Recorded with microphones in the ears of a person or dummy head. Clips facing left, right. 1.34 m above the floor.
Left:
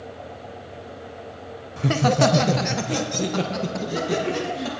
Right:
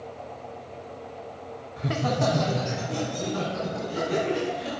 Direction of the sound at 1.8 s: 50° left (ahead or behind).